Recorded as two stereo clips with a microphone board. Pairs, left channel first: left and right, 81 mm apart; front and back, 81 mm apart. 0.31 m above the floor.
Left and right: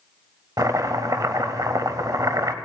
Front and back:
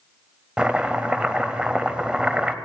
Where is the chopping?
105° right, 0.5 m.